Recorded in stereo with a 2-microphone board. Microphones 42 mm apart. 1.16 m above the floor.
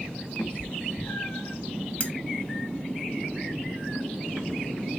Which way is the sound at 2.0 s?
35° left (ahead or behind).